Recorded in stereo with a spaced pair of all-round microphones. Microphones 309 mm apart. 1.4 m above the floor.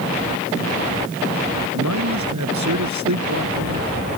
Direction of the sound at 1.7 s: 65° right (ahead or behind).